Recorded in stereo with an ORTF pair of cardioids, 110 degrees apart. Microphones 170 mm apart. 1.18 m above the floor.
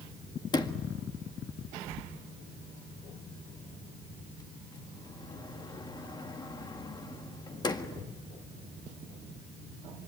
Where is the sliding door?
25° left, 1.7 m.